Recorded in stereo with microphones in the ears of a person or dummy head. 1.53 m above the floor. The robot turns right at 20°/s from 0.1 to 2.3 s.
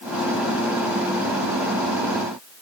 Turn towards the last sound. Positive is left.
No sound to turn to.